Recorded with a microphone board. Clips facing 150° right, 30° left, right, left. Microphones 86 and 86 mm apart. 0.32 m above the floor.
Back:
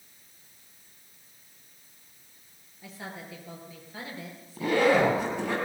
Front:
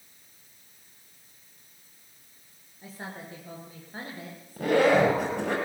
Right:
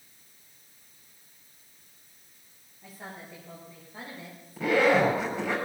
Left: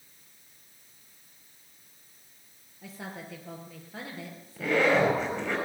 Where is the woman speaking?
80° left, 5.5 m; by 5.1 s 70° left, 5 m.